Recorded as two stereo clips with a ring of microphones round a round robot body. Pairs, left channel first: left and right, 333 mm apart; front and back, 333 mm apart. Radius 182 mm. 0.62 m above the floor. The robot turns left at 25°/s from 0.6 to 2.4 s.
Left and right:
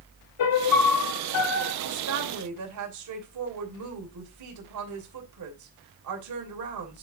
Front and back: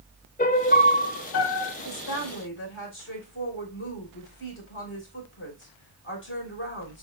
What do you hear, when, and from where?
0.4 s a piano: 65° left, 1.1 m; by 1.7 s 40° left, 1.1 m
1.8 s a woman speaking: 45° right, 3 m; by 7.0 s 55° right, 3 m